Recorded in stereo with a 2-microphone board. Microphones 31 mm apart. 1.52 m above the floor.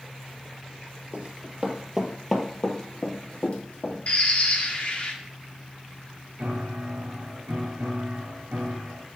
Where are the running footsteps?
45° right (ahead or behind), 2 m; by 4.0 s 55° left (ahead or behind), 3 m.